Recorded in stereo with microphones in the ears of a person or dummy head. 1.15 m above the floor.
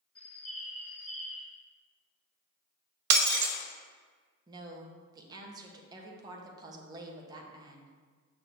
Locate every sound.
0.1 s a bird: 10° left (ahead or behind), 1.3 m
3.1 s breaking glass: 65° right (ahead or behind), 0.7 m
4.5 s a woman speaking: 30° right (ahead or behind), 1.1 m